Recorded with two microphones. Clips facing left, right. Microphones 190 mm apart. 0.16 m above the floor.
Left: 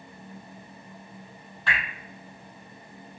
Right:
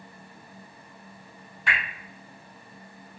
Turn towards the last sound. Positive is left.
turn(degrees=-10)  # may be behind; listen again after turning